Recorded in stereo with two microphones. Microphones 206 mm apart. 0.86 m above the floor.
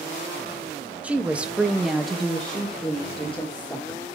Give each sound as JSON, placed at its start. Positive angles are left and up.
{"t": 1.0, "sound": "a woman speaking", "side_deg": -5, "distance_m": 1.2}